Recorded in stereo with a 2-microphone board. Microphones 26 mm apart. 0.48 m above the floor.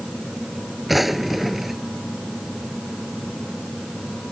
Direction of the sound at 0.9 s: 5° right (ahead or behind).